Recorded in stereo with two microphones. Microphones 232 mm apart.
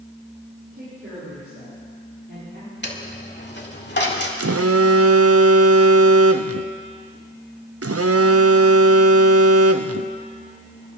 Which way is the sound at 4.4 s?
80° right.